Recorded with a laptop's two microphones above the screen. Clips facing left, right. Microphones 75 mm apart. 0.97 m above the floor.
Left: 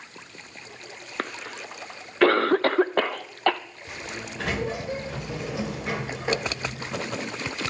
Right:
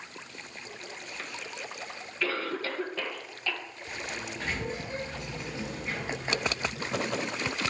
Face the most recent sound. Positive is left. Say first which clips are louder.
# left 1 dB
turn(degrees=80)